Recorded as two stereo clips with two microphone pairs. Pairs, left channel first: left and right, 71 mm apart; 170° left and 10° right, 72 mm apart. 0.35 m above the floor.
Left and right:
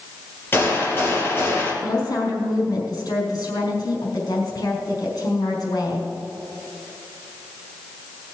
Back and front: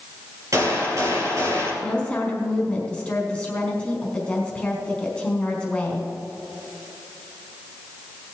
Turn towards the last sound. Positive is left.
turn(degrees=95)